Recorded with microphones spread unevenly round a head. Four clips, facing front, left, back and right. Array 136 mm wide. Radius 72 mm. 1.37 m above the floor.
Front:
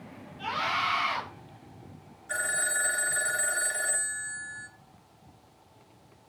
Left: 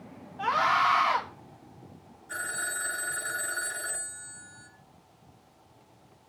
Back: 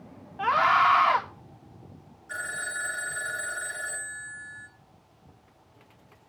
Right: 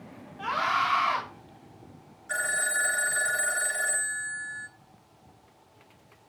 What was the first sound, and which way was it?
A scream, 165° left.